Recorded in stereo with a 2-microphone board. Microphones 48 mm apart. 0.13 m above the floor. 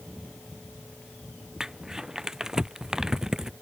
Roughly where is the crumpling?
Centre.